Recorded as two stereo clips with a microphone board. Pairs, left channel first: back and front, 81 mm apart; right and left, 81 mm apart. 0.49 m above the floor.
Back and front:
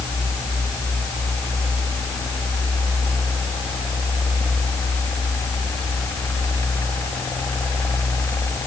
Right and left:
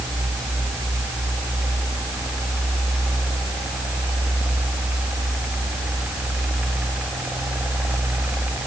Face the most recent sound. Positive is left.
No sound to turn to.